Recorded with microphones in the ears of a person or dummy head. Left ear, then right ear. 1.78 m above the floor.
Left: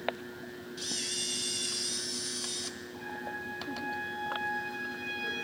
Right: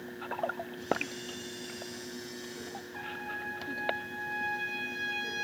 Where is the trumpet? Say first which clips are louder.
Right 2 dB; 65° right (ahead or behind), 6 m.